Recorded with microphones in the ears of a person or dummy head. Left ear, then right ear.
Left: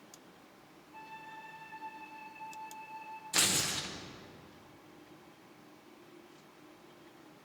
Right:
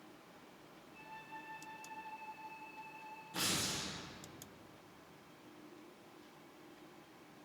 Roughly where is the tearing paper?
Left.